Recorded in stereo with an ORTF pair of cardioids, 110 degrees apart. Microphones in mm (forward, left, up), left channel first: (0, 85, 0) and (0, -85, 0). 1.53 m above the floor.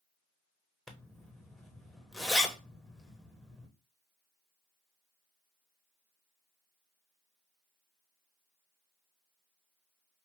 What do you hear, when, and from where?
0.9 s a zipper: straight ahead, 1.1 m